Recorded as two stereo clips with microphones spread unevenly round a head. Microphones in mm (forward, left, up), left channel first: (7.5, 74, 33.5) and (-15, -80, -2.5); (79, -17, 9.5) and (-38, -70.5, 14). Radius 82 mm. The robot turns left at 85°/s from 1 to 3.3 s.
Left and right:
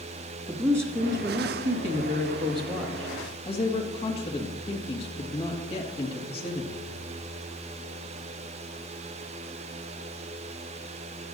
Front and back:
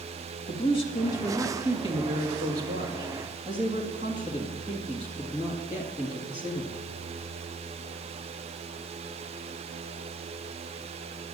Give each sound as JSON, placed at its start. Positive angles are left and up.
{"t": 0.5, "sound": "a woman speaking", "azimuth_deg": -25, "distance_m": 1.9}